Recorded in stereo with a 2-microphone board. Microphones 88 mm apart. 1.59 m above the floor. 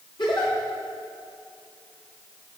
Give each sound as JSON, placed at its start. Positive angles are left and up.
{"t": 0.2, "sound": "a giggle", "side_deg": 65, "distance_m": 4.5}